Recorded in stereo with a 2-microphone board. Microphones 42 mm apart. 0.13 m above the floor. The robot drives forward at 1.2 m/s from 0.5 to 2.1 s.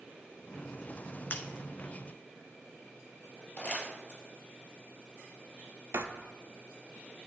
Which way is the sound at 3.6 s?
25° left (ahead or behind).